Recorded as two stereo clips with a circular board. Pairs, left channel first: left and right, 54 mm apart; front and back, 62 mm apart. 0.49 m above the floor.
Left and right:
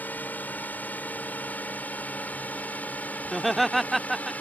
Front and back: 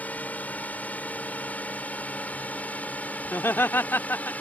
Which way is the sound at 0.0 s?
50° left.